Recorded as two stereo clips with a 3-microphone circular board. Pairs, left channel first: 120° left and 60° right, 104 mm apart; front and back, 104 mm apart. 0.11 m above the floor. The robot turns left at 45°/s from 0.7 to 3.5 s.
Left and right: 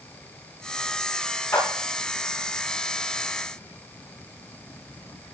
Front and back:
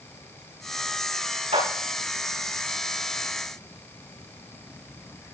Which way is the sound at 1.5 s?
Straight behind.